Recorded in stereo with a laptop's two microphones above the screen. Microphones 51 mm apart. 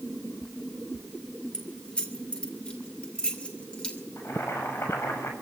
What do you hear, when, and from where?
1.5 s keys jangling: 20° left (ahead or behind), 2.5 m
4.2 s boiling: 65° left (ahead or behind), 6.5 m